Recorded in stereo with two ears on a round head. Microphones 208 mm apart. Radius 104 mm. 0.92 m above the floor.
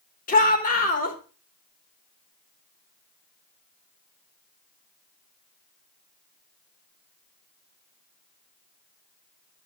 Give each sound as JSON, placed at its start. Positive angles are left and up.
{"t": 0.3, "sound": "a shout", "side_deg": 35, "distance_m": 4.0}